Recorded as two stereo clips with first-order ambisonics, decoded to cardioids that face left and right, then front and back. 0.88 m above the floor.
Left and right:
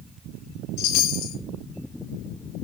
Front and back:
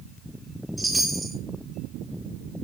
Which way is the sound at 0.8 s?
100° left.